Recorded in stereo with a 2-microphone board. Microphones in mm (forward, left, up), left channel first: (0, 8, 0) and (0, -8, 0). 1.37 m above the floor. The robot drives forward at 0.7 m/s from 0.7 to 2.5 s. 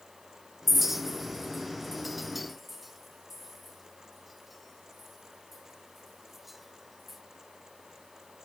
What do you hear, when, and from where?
0.7 s a clink: 20° right (ahead or behind), 0.5 m; by 7.2 s 5° right (ahead or behind), 1.5 m